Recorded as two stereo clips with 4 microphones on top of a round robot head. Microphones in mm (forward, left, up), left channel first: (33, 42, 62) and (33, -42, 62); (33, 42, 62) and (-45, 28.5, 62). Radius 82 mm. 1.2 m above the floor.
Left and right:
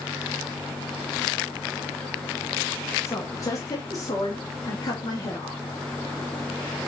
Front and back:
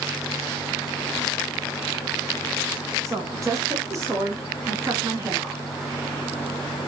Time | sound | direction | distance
3.0 | a woman speaking | 145° left | 1.6 m